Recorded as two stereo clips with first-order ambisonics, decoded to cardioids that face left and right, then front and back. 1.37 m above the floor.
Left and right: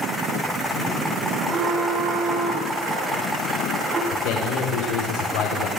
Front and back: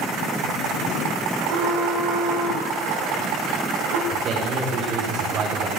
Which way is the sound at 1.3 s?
140° right.